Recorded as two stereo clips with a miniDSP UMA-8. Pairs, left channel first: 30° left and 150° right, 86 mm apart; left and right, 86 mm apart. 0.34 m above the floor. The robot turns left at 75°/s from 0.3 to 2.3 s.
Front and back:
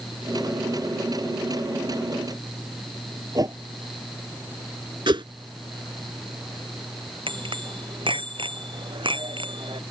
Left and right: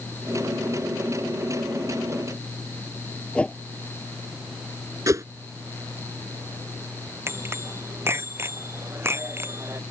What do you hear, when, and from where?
3.4 s a whoosh: 165° left
5.1 s a whoosh: 135° right
7.3 s a bicycle bell: 150° right